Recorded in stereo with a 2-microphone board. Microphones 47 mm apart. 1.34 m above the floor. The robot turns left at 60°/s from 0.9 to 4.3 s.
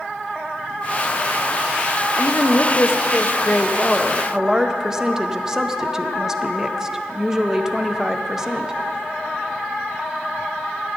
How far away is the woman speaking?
About 0.6 m.